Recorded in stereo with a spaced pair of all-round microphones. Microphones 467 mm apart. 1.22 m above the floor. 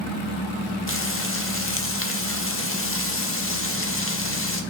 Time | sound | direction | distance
0.9 | frying | 25° left (ahead or behind) | 1.0 m